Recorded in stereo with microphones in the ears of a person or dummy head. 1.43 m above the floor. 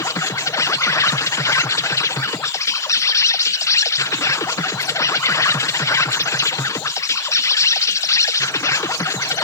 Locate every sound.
0.0 s an insect: 15° left (ahead or behind)